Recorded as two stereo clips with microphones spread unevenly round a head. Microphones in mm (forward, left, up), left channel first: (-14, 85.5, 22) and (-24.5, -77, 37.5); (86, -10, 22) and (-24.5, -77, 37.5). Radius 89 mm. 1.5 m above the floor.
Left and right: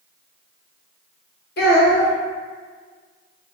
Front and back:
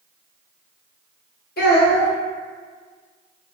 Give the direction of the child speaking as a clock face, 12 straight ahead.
10 o'clock.